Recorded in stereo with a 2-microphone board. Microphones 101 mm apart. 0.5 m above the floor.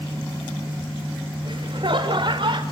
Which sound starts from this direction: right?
Laughter, at 1.4 s.